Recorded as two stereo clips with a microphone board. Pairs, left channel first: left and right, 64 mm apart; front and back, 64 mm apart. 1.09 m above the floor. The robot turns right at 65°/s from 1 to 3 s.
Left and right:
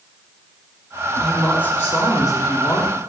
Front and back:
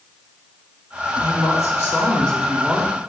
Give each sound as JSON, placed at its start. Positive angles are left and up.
{"t": 1.2, "sound": "a woman speaking", "azimuth_deg": 5, "distance_m": 3.5}